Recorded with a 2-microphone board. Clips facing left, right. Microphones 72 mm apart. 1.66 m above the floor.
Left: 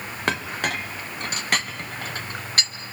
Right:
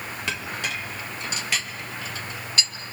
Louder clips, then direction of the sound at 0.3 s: Left 6 dB; 50° left (ahead or behind).